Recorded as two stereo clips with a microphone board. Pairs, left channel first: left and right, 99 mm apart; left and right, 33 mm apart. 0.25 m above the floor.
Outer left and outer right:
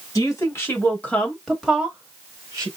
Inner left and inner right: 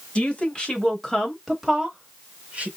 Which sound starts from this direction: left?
A woman speaking, at 0.1 s.